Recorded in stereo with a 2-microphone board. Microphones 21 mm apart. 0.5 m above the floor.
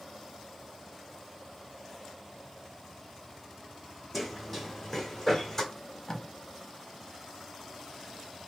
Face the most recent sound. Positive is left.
turn(degrees=30)  # may be behind; listen again after turning